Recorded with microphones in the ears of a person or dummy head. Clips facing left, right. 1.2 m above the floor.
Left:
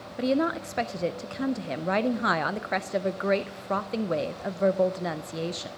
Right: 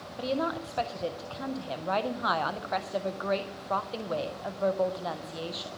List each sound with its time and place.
0.2 s a woman speaking: 30° left (ahead or behind), 0.5 m